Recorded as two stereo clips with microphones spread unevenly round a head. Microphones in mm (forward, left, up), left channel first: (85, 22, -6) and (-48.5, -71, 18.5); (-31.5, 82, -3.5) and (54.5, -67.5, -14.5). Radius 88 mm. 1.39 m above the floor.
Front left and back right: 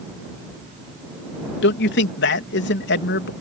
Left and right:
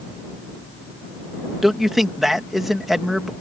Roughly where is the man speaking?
Ahead left.